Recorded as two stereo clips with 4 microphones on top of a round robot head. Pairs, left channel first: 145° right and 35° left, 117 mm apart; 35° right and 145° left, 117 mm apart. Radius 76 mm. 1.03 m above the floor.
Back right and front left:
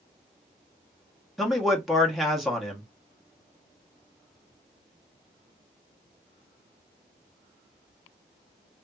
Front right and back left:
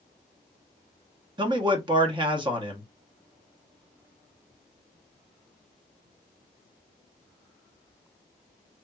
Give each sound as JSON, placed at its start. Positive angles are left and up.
{"t": 1.4, "sound": "a man speaking", "azimuth_deg": 125, "distance_m": 1.0}